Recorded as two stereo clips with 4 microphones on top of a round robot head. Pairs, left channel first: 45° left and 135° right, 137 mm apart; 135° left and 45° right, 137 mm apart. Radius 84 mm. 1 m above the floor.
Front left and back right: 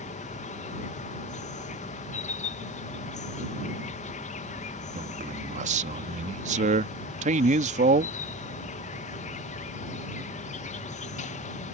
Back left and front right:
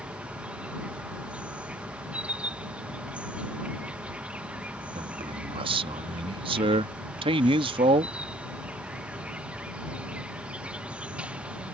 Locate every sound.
0.0 s an insect: 35° left
5.0 s a man speaking: 100° right